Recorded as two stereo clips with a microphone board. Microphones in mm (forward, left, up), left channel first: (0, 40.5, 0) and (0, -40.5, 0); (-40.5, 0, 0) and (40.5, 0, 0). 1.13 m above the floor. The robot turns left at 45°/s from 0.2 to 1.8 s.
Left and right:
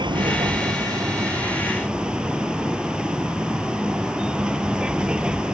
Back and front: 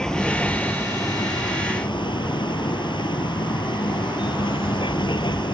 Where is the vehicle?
100° right; by 5.5 s 170° right.